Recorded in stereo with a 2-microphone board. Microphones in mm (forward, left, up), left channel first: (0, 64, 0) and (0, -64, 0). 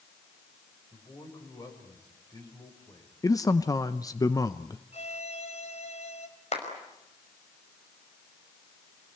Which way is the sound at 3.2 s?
30° left (ahead or behind).